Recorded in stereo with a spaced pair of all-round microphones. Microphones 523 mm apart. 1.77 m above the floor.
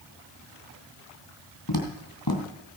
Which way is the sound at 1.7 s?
45° left (ahead or behind).